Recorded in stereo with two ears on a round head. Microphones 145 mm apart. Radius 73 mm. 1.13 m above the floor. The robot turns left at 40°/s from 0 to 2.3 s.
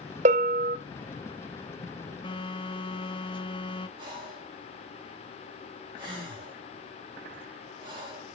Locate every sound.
0.2 s a bell: 45° right (ahead or behind), 0.6 m; by 0.8 s 60° right (ahead or behind), 0.6 m
2.2 s a phone buzzing: 30° left (ahead or behind), 1.6 m
4.0 s breathing: 30° right (ahead or behind), 6.5 m